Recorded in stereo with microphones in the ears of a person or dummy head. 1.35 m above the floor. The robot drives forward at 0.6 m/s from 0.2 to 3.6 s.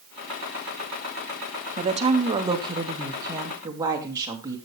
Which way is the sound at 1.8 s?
35° right (ahead or behind).